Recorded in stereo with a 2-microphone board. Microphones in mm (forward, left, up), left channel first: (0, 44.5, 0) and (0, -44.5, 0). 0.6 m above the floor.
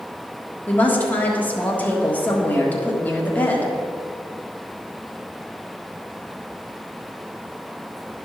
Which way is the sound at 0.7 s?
15° left (ahead or behind).